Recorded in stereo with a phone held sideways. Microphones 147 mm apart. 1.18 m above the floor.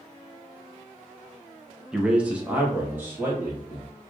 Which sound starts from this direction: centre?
A man speaking, at 1.9 s.